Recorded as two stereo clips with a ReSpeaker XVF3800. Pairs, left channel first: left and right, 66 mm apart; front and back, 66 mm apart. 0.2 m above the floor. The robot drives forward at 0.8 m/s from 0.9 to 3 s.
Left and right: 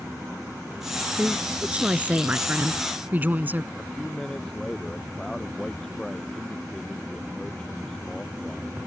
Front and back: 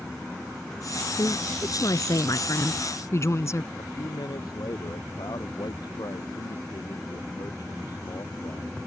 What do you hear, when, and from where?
1.1 s a woman speaking: 15° right; by 3.7 s 30° right
3.8 s a man speaking: 10° left